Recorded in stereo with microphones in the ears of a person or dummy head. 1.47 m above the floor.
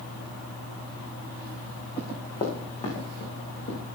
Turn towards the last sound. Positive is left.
turn(degrees=30)  # may be behind; listen again after turning